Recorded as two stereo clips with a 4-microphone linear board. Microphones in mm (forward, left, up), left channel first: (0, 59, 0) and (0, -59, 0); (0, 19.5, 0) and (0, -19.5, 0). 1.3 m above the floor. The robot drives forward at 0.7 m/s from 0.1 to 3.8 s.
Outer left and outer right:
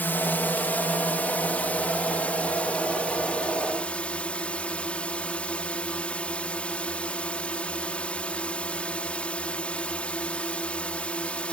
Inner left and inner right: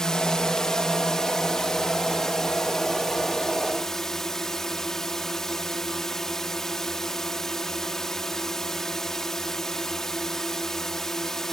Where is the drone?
15° left (ahead or behind); by 11.5 s 10° left (ahead or behind).